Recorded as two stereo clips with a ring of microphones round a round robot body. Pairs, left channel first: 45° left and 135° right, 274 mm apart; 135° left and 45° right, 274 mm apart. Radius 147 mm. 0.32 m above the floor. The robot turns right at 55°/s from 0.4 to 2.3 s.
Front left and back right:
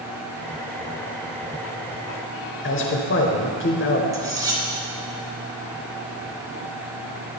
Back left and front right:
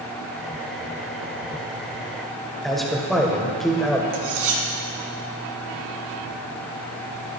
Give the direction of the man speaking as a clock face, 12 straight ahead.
10 o'clock.